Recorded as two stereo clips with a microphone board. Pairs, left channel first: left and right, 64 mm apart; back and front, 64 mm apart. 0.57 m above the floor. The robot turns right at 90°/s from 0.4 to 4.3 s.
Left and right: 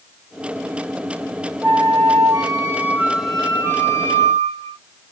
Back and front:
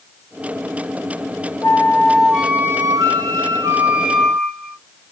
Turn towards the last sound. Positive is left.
turn(degrees=90)